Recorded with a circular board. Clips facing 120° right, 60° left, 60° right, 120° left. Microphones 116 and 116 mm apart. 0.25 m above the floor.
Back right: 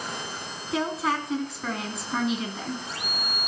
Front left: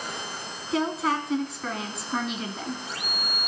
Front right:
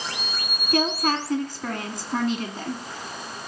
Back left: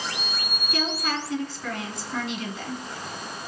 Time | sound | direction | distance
0.7 | a woman speaking | 30° right | 2.5 m